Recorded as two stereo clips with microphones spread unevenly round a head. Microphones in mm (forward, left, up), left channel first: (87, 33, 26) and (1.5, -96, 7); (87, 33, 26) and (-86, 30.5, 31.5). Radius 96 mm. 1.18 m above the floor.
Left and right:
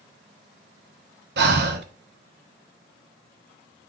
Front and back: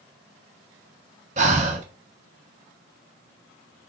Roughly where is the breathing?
Behind right.